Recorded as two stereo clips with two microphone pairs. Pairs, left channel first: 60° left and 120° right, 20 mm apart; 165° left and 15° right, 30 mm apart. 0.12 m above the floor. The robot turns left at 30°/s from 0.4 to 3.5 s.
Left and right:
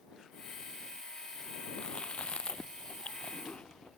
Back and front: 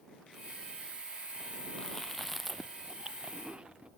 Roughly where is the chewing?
Left.